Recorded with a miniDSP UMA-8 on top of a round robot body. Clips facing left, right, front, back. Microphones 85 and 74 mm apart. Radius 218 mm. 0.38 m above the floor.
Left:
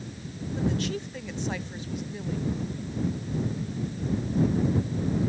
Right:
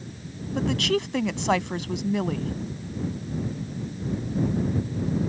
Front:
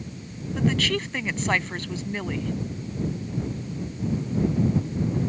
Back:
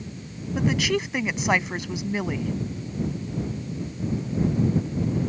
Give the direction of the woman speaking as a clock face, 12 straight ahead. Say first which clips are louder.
Right 5 dB, back 1 dB; 3 o'clock.